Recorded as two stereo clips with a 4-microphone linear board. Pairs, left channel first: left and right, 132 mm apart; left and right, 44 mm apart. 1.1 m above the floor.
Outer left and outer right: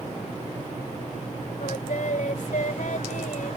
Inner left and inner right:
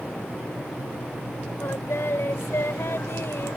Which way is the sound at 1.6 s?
80° left.